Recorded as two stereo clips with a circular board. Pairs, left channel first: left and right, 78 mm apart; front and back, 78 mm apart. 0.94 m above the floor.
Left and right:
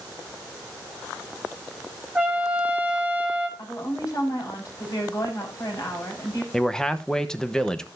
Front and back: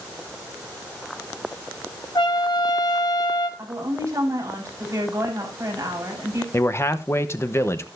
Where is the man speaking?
15° left, 0.9 m.